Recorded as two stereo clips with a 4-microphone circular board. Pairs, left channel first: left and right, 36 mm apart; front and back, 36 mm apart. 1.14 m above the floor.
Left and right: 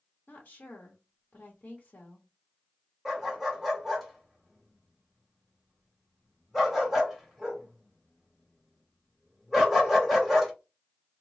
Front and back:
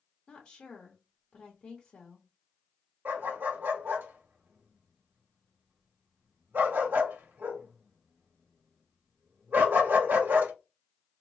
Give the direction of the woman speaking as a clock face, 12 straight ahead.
10 o'clock.